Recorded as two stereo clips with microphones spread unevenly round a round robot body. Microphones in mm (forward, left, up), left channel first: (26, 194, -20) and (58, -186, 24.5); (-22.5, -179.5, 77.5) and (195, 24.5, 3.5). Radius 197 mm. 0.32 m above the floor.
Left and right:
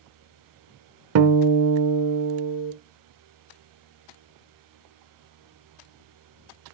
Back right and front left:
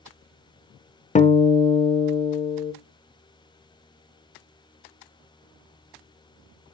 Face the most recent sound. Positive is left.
turn(degrees=-60)